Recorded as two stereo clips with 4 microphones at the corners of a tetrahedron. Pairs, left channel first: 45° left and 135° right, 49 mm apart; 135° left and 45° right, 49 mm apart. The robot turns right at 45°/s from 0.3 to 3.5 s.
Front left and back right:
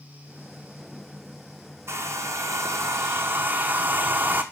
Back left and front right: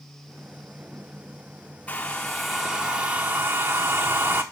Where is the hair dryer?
160° right, 1.1 m; by 4.4 s 85° right, 1.1 m.